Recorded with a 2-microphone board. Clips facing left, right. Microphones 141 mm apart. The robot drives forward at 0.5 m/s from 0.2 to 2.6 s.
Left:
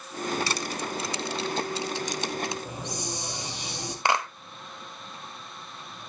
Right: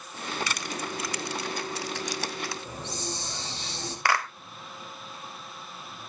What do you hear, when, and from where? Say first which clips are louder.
0.5 s crushing: left 3 dB; 30° left (ahead or behind), 1.3 m; by 2.5 s 20° left (ahead or behind), 2 m
2.6 s a hiss: left 1 dB; 15° left (ahead or behind), 3.5 m
4.0 s a clap: left 1 dB; 20° left (ahead or behind), 0.9 m